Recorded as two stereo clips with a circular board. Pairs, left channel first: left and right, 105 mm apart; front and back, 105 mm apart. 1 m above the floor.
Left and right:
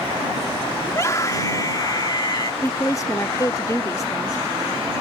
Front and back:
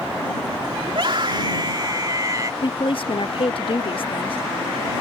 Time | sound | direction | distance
0.9 | a scream | 150° left | ?
2.6 | a woman speaking | 30° left | ?